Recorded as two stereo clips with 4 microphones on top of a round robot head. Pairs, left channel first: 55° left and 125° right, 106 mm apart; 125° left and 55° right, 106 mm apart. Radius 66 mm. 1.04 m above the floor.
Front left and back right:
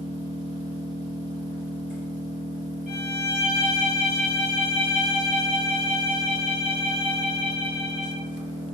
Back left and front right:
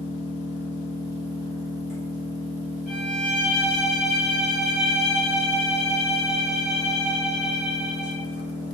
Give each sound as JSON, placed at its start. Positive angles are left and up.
{"t": 0.0, "sound": "an engine running", "azimuth_deg": -70, "distance_m": 1.7}
{"t": 2.9, "sound": "a violin", "azimuth_deg": -145, "distance_m": 0.8}